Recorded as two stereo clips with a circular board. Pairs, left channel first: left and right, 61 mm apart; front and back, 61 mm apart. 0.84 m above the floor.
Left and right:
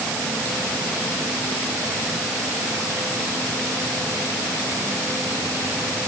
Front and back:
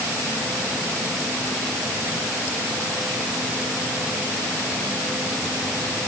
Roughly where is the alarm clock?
No alarm clock in this recording.